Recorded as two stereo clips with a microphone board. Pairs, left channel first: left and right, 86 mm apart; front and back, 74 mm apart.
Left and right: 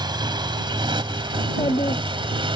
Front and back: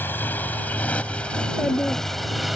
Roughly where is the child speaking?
Left.